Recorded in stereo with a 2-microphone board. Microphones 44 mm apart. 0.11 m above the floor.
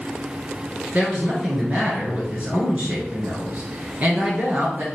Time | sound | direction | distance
0.9 | a woman speaking | 35° right (ahead or behind) | 1.9 m